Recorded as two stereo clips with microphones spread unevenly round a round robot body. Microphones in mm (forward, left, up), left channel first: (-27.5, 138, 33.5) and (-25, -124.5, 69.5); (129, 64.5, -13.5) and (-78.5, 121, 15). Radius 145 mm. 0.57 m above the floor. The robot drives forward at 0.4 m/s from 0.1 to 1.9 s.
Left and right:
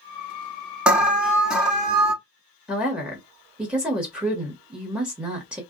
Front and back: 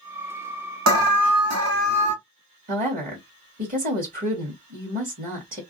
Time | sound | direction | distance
0.9 | an alarm | straight behind | 0.8 m
2.7 | a woman speaking | 175° left | 1.3 m